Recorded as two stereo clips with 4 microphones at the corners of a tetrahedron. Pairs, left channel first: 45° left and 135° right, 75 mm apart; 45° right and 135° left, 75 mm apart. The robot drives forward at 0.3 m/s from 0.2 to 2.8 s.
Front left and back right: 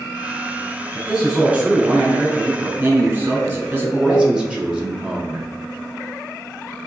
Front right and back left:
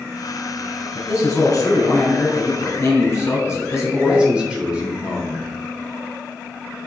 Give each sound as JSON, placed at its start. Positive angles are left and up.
{"t": 0.9, "sound": "a man speaking", "azimuth_deg": -60, "distance_m": 1.5}
{"t": 3.8, "sound": "a man speaking", "azimuth_deg": 170, "distance_m": 0.7}